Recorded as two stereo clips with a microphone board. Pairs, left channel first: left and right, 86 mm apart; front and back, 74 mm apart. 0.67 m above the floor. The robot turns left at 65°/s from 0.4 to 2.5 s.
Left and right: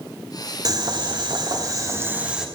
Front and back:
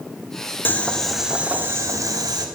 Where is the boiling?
60° right, 1.7 m; by 2.5 s 175° right, 1.7 m.